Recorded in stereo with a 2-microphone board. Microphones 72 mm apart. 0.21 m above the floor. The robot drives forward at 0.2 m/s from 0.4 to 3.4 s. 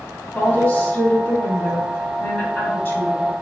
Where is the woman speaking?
25° left (ahead or behind), 1.1 m.